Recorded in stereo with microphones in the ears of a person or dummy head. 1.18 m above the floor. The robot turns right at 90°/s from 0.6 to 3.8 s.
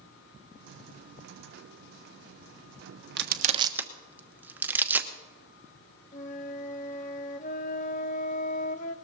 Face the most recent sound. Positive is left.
turn(degrees=35)  # may be behind; listen again after turning